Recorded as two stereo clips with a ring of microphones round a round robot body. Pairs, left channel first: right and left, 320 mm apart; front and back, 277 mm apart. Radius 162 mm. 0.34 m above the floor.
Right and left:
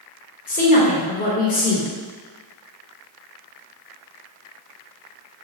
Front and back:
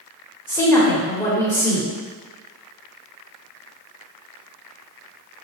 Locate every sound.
0.5 s a woman speaking: 75° right, 0.9 m